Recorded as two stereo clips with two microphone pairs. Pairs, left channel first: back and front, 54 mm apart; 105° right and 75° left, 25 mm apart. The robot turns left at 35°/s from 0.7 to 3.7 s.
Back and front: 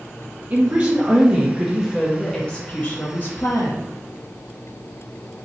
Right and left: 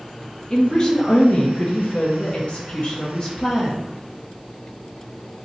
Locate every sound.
0.5 s a woman speaking: 55° right, 0.9 m; by 3.9 s 160° right, 0.9 m